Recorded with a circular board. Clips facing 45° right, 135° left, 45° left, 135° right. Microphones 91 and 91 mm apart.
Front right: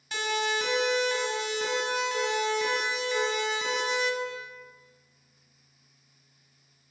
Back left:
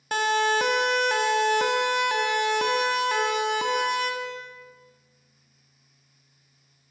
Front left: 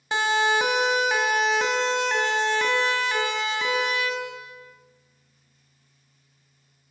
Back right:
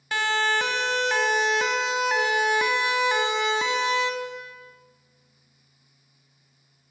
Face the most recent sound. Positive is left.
turn(degrees=165)